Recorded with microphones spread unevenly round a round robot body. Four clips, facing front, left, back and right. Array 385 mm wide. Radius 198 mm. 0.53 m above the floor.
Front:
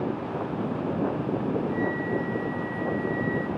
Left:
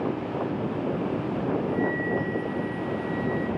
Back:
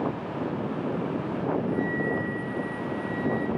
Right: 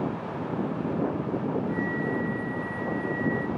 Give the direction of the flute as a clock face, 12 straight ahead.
6 o'clock.